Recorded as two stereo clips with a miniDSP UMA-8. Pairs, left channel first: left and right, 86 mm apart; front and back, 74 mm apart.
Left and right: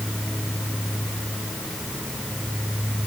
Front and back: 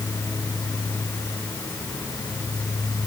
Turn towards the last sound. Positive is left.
No sound to turn to.